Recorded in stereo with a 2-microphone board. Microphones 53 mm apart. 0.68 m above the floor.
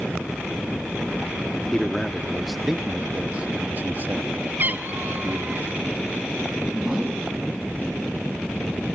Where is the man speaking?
10° left (ahead or behind), 1.1 m; by 5.6 s 45° right (ahead or behind), 1.3 m.